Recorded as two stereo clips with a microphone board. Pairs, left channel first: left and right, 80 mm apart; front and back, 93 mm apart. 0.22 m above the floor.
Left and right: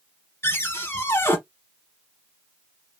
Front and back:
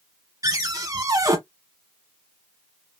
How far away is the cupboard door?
About 1.0 m.